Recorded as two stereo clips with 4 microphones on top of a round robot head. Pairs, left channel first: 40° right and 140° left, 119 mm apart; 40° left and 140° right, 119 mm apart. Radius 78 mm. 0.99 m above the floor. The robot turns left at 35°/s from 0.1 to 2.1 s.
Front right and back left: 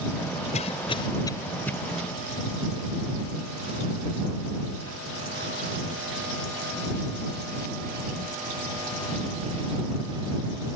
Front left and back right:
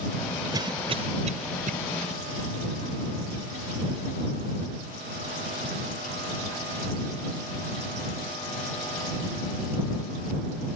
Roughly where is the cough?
Right.